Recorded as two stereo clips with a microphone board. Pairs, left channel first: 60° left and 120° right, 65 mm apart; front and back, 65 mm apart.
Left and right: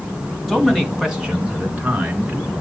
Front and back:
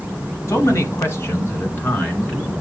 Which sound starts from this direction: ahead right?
A man speaking, at 0.5 s.